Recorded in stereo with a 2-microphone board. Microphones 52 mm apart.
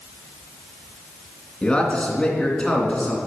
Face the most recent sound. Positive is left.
turn(degrees=20)  # may be behind; listen again after turning